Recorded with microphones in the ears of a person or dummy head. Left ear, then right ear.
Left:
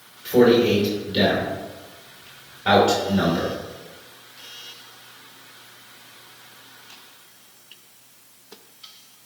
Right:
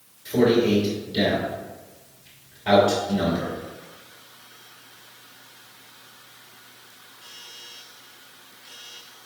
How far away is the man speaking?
About 2.5 m.